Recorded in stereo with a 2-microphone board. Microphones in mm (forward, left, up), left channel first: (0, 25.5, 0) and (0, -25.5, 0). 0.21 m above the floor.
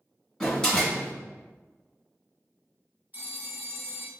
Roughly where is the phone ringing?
Right.